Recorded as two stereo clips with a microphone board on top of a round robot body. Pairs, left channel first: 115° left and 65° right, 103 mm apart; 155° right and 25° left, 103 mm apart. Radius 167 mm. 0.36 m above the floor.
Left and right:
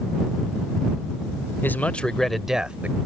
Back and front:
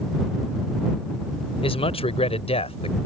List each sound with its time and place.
1.6 s a man speaking: straight behind; by 3.0 s 140° right